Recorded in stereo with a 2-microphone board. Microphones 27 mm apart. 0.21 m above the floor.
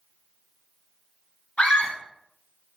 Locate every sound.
1.6 s a scream: 55° left (ahead or behind), 2.5 m